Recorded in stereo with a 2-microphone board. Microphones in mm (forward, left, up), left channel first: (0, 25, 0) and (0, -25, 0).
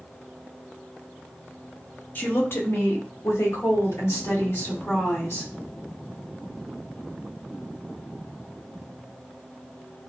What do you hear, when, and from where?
2.1 s a woman speaking: 40° left (ahead or behind), 1.0 m; by 5.5 s 55° left (ahead or behind), 2.5 m